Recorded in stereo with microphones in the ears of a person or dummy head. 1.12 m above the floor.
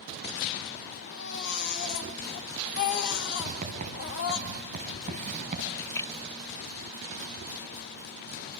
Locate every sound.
1.1 s a baby crying: 60° left (ahead or behind), 2.5 m
3.4 s writing: 40° right (ahead or behind), 4.5 m
5.7 s a splash: 10° left (ahead or behind), 0.7 m